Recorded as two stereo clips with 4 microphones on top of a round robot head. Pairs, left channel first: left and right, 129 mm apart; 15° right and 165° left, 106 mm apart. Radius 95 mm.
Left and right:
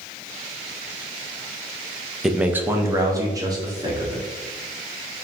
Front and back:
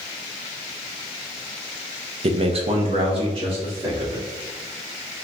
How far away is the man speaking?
About 0.5 m.